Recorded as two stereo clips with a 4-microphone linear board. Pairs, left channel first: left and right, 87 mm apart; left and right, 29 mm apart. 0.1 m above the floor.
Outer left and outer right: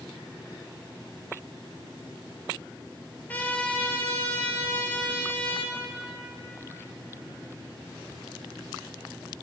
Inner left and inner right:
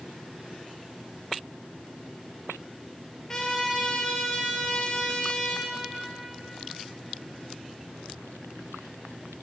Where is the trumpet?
20° left (ahead or behind), 0.7 m.